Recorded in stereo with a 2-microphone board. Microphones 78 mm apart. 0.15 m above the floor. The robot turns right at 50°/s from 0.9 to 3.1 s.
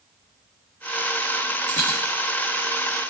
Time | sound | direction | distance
1.7 | a dropped coin | 20° left (ahead or behind) | 3.5 m